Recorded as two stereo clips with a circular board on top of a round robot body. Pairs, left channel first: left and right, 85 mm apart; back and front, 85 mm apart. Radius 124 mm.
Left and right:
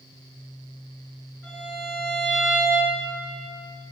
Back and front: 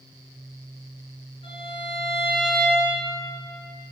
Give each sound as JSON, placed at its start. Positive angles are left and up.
{"t": 1.4, "sound": "a violin", "azimuth_deg": -165, "distance_m": 4.0}